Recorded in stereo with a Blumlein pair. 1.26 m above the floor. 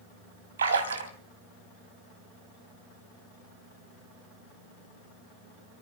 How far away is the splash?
About 3 m.